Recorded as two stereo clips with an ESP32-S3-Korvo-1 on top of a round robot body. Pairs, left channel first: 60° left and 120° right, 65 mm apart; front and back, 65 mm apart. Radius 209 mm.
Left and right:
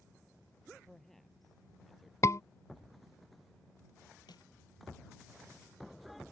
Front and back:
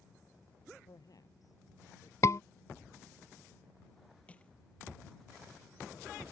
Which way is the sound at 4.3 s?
70° left.